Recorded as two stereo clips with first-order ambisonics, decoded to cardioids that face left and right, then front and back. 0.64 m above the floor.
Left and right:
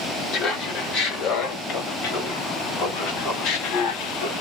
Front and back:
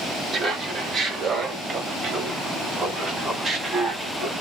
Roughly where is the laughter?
Behind left.